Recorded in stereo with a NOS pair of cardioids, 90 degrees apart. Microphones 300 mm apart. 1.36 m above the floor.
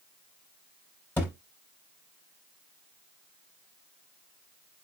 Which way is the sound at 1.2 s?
5° left.